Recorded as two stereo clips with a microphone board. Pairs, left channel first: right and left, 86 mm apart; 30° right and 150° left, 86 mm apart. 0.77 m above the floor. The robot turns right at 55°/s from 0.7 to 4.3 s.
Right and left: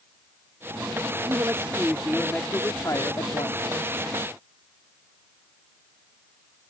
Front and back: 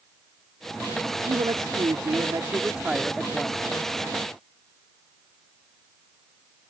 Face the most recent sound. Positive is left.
turn(degrees=-55)